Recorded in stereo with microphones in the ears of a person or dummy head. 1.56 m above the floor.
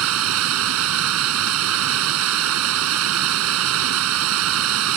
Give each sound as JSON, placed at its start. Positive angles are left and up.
{"t": 0.0, "sound": "running water", "side_deg": -75}